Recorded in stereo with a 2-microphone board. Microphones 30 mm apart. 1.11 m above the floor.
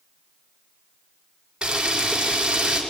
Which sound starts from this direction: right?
A camera shutter, at 1.6 s.